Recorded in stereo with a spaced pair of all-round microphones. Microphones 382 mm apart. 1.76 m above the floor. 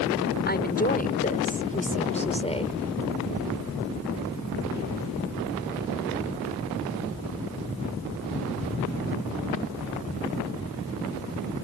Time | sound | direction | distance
0.5 | a woman speaking | 25° left (ahead or behind) | ?